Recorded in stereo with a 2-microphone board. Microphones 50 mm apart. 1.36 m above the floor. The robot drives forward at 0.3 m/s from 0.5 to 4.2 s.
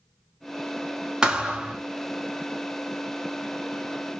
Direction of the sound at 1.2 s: 15° right (ahead or behind).